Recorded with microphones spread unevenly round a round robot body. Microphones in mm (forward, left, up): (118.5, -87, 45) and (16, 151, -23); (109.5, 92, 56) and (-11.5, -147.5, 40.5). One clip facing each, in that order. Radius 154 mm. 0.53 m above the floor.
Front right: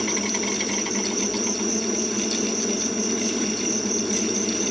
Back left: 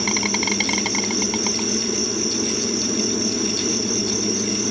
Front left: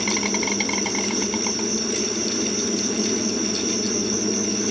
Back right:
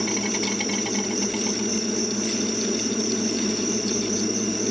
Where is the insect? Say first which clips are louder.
Back left 1 dB, front left 1 dB; 140° left, 0.8 m.